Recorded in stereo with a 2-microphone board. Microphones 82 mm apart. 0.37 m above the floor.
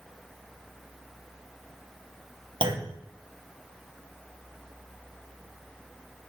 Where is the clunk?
75° right (ahead or behind), 0.8 m.